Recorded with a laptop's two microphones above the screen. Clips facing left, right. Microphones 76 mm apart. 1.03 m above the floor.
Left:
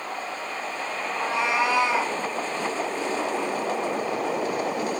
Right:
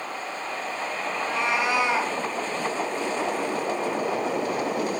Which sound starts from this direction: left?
A cat meowing, at 1.1 s.